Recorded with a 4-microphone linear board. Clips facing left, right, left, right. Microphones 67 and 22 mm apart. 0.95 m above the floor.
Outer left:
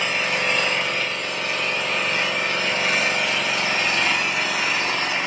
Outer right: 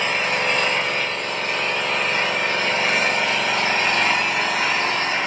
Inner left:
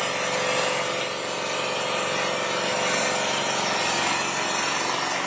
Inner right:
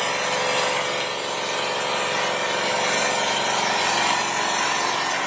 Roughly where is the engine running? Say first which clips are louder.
Outer right 2 dB, inner right 2 dB; right.